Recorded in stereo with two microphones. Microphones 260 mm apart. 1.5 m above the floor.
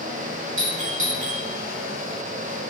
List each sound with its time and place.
0.6 s a doorbell: 50° right (ahead or behind), 3 m